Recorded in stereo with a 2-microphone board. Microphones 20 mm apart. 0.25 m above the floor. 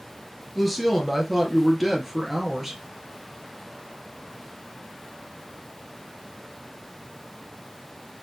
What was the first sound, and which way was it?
A woman speaking, 5° right (ahead or behind).